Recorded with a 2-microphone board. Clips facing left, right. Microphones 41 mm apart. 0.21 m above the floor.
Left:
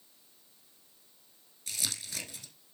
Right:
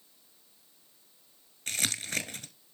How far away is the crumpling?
About 1.1 m.